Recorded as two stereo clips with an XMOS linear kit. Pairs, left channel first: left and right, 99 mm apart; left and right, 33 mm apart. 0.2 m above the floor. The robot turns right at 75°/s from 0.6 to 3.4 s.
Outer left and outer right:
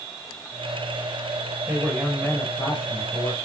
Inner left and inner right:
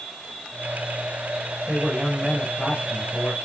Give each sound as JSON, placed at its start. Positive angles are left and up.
{"t": 1.7, "sound": "a man speaking", "azimuth_deg": -30, "distance_m": 5.0}